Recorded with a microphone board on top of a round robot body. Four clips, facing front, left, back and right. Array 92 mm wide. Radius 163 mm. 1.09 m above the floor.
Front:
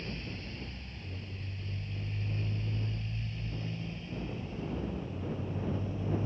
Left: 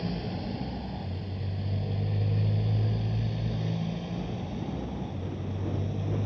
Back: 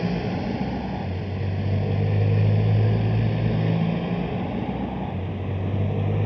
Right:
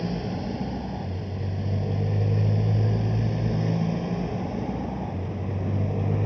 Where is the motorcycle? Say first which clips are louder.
Right 4 dB, back 16 dB; 165° right; by 6.3 s 150° right.